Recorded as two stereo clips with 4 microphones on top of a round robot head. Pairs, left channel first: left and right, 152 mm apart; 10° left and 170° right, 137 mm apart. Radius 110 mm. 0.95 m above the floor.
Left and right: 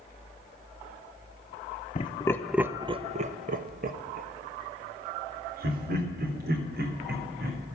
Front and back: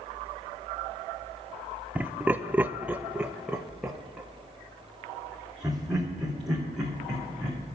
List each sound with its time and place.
1.9 s laughter: 110° left, 0.9 m; by 7.8 s 80° right, 5 m